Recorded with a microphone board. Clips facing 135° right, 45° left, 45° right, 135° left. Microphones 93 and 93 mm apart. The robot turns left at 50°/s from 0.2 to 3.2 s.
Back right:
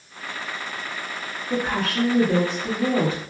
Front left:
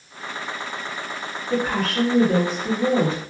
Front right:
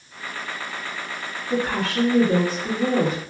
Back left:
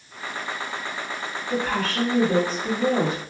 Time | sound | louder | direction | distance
1.5 | a woman speaking | front left 2 dB, front right 2 dB | 70° right | 1.5 m